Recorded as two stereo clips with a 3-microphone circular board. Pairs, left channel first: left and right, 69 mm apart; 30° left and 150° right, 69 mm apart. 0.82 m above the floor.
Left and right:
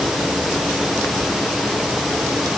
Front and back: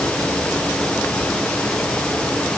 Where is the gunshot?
I don't hear a gunshot.